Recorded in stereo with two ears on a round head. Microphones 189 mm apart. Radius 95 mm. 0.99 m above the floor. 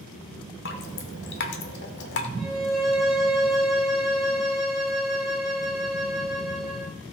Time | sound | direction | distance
0.7 | dripping | 55° left (ahead or behind) | 1.4 m
2.4 | a violin | 5° right (ahead or behind) | 3 m